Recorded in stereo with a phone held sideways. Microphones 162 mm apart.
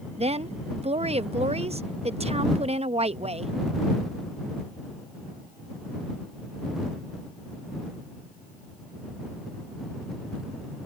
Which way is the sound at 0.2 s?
40° right (ahead or behind).